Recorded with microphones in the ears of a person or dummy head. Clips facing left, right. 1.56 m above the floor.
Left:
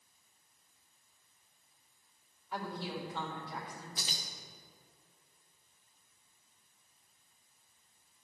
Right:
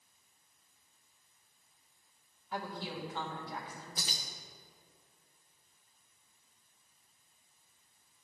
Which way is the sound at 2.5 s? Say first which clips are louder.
Left 1 dB; centre (ahead or behind).